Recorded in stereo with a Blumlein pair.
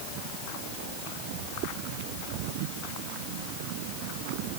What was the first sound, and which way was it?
Only background noise.